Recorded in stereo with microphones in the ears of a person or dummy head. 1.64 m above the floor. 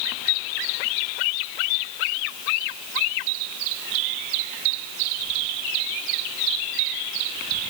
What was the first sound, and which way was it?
Only background noise.